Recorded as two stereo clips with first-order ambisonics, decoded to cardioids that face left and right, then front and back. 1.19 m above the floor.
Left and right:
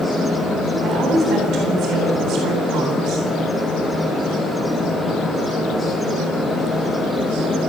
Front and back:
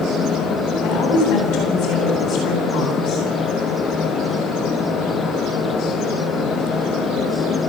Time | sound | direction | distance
0.8 | a woman speaking | 35° right | 9.5 m